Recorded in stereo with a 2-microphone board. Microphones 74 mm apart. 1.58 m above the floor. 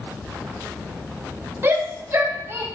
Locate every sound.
1.6 s a shout: 35° right (ahead or behind), 3 m